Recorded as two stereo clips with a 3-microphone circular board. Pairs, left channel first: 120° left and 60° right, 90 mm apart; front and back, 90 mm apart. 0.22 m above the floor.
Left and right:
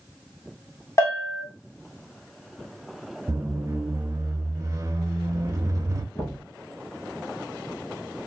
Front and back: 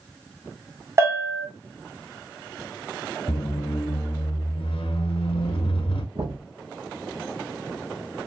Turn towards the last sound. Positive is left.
turn(degrees=180)